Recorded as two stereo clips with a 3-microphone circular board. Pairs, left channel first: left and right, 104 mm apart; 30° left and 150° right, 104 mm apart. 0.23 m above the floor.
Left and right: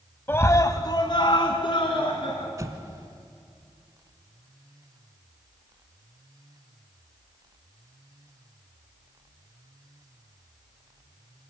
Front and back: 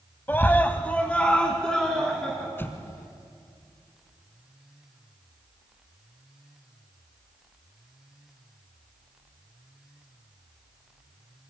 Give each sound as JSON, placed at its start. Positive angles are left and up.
{"t": 0.3, "sound": "a scream", "azimuth_deg": 65, "distance_m": 1.1}
{"t": 2.6, "sound": "an explosion", "azimuth_deg": -35, "distance_m": 1.4}